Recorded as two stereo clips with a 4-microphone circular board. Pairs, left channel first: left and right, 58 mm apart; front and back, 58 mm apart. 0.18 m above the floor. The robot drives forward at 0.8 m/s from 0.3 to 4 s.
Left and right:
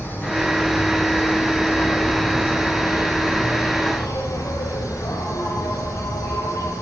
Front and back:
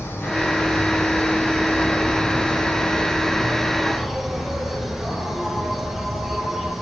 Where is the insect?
45° left, 4 m; by 6.8 s 95° left, 2.5 m.